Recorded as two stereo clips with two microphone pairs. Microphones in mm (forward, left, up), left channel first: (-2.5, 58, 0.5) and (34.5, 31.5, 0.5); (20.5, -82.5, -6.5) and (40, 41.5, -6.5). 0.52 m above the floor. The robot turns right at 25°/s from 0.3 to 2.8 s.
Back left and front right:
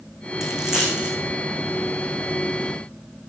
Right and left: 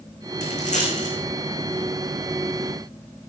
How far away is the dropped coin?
About 4 m.